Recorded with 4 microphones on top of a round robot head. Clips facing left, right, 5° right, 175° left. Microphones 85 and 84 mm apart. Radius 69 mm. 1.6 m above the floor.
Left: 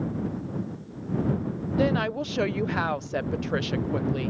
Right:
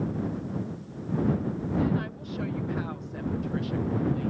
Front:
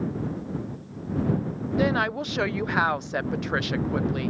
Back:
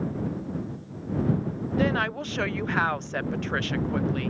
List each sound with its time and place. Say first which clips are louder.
1.8 s a woman speaking: left 7 dB, front 2 dB; 75° left